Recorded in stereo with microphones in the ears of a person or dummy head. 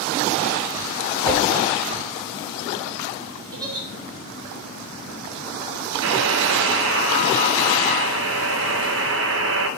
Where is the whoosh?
15° left (ahead or behind), 3 m.